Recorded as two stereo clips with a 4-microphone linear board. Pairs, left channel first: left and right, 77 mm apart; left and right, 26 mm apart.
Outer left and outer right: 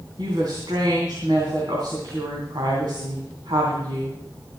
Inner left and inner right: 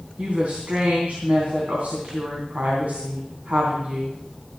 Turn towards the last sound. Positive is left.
turn(degrees=-70)  # may be behind; listen again after turning